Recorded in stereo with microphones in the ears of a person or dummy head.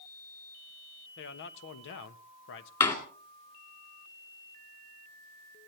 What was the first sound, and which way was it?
A man speaking, 65° left (ahead or behind).